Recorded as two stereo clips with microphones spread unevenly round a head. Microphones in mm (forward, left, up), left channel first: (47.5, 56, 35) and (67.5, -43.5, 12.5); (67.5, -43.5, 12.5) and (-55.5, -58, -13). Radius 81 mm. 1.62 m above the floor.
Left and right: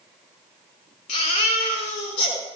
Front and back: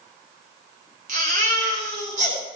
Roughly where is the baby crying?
Behind left.